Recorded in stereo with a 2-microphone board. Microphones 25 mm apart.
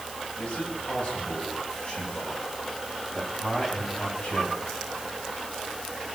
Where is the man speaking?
50° left (ahead or behind), 7 m; by 4.8 s 40° left (ahead or behind), 9 m.